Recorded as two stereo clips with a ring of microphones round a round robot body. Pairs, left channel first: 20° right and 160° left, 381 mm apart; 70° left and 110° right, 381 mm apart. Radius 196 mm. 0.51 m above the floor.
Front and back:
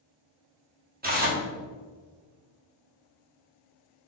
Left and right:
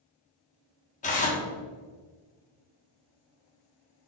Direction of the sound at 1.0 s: 120° left.